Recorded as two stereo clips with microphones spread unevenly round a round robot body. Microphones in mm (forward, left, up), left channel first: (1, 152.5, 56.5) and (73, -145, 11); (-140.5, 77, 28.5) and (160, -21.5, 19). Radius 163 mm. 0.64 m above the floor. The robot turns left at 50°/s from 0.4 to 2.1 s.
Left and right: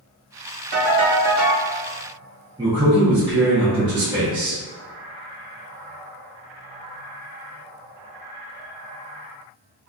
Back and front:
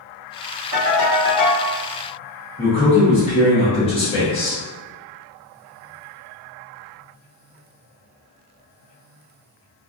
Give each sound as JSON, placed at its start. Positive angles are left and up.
{"t": 0.7, "sound": "a ringtone", "azimuth_deg": -60, "distance_m": 1.2}
{"t": 2.6, "sound": "a man speaking", "azimuth_deg": -135, "distance_m": 0.7}